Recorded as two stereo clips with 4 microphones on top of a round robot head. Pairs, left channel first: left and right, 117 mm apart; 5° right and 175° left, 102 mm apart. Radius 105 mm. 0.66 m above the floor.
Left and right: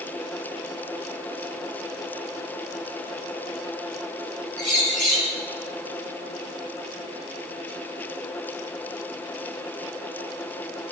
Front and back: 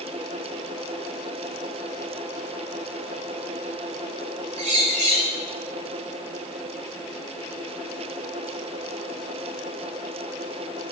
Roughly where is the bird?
Behind.